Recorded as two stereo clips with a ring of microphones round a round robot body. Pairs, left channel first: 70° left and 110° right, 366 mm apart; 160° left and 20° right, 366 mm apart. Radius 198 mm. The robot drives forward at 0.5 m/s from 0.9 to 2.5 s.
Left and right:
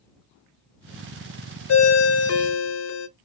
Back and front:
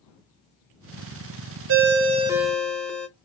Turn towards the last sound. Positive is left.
turn(degrees=70)